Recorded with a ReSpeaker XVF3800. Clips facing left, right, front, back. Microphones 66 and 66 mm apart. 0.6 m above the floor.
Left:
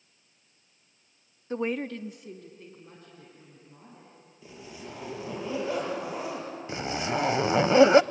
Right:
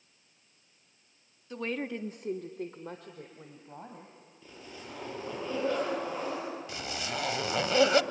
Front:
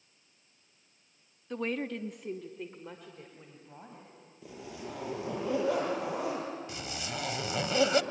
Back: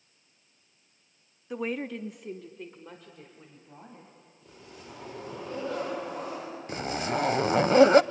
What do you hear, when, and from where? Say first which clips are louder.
1.5 s a woman speaking: left 4 dB, back 1 dB; 105° left, 0.8 m; by 4.1 s 85° right, 3.5 m
4.4 s a zipper: left 3 dB, front 6 dB; 10° left, 8 m
6.7 s a zipper: left 7 dB, back 9 dB; 145° left, 0.5 m